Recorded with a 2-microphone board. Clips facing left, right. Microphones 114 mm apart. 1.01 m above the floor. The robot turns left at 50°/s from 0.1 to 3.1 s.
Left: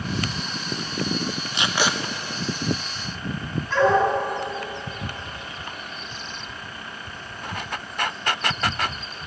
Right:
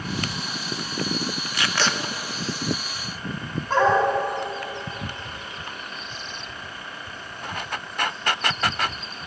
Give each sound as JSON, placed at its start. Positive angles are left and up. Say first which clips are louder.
{"t": 1.5, "sound": "tape being pulled", "louder": "left 1 dB", "side_deg": 25, "distance_m": 0.6}
{"t": 3.7, "sound": "a dog barking", "louder": "even", "side_deg": -50, "distance_m": 2.5}